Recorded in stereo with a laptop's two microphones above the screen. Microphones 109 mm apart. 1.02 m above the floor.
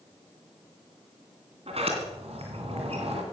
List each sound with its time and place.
1.7 s a sliding door: 65° right (ahead or behind), 2.5 m